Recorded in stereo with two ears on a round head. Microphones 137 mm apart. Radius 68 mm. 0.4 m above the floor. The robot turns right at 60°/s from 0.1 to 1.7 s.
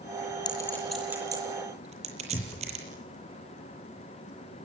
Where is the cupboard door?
25° left (ahead or behind), 0.5 m.